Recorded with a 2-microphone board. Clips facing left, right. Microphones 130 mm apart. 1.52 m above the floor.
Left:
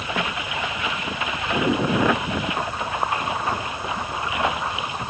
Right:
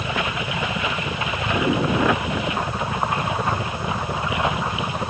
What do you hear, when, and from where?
0.0 s a helicopter: 75° right (ahead or behind); by 5.1 s 80° right